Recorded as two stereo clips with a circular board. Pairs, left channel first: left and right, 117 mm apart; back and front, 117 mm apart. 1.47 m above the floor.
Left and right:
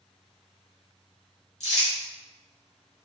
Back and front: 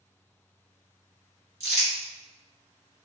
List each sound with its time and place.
1.6 s crumpling: 65° left, 1.9 m